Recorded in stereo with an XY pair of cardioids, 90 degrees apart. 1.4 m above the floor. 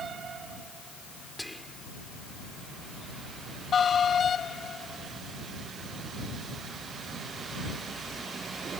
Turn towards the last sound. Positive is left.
turn(degrees=5)